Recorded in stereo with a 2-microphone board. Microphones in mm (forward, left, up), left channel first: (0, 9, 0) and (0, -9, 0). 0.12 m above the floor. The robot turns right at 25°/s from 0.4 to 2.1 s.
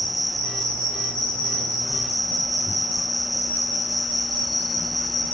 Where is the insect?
10° left, 4.5 m; by 5.3 s 55° left, 4.5 m.